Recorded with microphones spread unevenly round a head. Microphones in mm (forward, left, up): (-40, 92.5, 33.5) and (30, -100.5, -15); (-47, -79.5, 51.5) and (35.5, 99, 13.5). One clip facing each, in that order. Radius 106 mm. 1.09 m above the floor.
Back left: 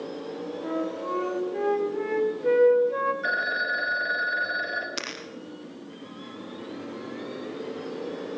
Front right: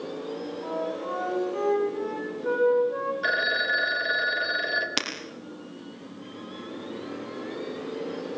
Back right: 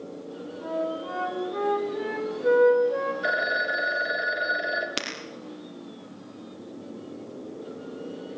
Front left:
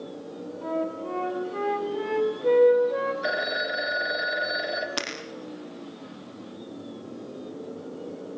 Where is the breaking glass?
50° right, 4 m.